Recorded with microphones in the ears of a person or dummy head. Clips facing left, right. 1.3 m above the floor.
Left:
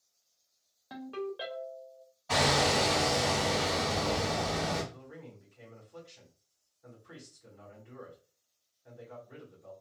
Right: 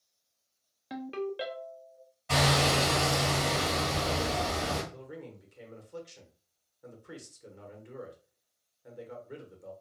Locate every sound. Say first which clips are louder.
0.9 s a ringtone: right 3 dB; 25° right (ahead or behind), 0.5 m
2.3 s hammering: even; 25° right (ahead or behind), 2.0 m
4.9 s a man speaking: right 4 dB; 60° right (ahead or behind), 1.2 m